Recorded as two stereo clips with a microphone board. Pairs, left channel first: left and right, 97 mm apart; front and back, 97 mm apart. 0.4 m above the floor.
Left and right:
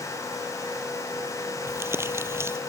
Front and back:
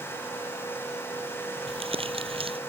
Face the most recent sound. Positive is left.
turn(degrees=-155)